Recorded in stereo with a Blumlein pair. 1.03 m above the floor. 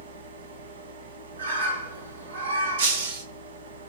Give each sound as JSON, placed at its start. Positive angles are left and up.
{"t": 0.0, "sound": "a fan", "azimuth_deg": -60, "distance_m": 2.0}
{"t": 1.4, "sound": "a bird", "azimuth_deg": -65, "distance_m": 3.0}
{"t": 2.8, "sound": "breaking glass", "azimuth_deg": -55, "distance_m": 3.0}